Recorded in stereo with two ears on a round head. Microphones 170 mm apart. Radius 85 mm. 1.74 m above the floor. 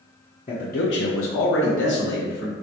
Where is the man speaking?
30° left (ahead or behind), 0.7 m; by 2.5 s 60° left (ahead or behind), 1.9 m.